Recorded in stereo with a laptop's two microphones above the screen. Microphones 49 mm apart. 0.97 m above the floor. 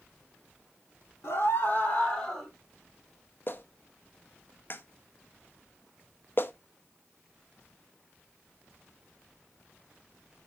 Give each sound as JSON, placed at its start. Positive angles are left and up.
{"t": 1.2, "sound": "a scream", "side_deg": 55, "distance_m": 2.5}
{"t": 3.5, "sound": "a clap", "side_deg": 45, "distance_m": 0.8}